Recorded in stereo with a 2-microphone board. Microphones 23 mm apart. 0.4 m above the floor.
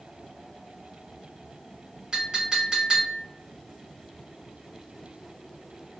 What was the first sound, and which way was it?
A clink, 35° right (ahead or behind).